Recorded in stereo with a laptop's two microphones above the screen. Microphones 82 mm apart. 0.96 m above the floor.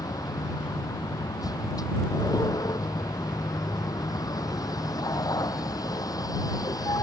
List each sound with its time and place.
0.0 s a vehicle: 55° left (ahead or behind)